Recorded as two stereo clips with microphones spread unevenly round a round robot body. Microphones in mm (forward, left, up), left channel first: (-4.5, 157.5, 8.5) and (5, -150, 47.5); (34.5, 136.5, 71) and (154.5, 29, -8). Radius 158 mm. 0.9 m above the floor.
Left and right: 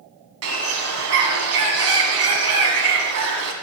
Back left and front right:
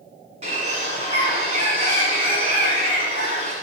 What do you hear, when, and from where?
0.4 s a bird: 125° right, 1.5 m